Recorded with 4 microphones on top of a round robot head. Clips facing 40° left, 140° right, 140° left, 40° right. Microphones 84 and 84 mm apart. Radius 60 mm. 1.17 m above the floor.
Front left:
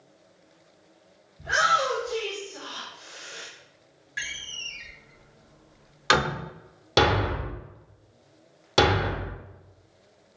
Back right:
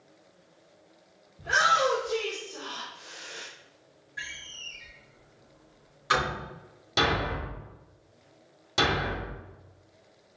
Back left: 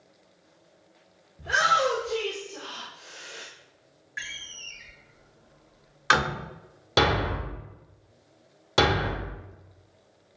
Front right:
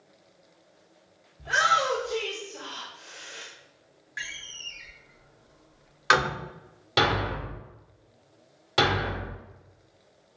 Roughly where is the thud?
Left.